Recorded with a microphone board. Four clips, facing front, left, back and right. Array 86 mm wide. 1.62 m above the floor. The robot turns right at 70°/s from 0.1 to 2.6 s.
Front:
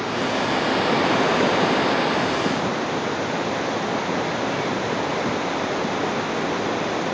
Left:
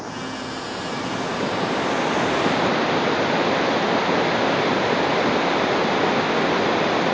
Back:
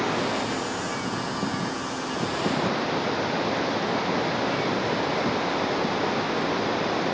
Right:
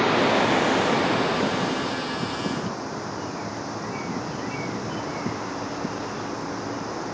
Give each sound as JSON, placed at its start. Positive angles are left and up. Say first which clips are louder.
{"t": 0.0, "sound": "running water", "louder": "right 10 dB, front 3 dB", "azimuth_deg": -90}